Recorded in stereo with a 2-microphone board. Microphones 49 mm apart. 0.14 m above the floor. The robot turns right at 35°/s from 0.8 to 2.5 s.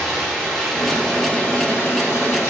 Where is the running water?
5° left, 2 m; by 2.5 s 60° left, 2 m.